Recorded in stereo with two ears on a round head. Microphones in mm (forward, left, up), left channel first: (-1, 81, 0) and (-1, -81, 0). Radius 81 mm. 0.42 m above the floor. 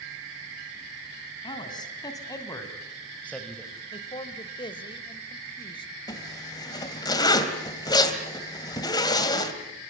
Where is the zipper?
25° left (ahead or behind), 2 m.